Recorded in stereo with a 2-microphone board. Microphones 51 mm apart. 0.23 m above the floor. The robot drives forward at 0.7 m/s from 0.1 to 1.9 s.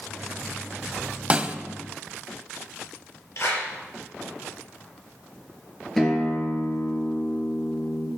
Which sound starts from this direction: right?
A snare drum, at 1.3 s.